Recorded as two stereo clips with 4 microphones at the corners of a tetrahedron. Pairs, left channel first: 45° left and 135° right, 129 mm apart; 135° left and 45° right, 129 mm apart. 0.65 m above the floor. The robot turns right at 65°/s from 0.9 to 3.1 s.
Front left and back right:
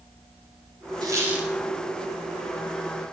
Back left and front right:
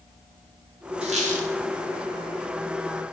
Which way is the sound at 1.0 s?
80° right.